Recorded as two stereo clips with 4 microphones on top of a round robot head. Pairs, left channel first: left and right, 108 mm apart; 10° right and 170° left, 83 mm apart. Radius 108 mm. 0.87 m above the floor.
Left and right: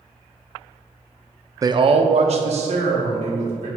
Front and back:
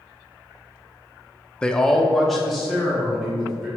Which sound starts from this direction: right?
A man speaking, at 1.6 s.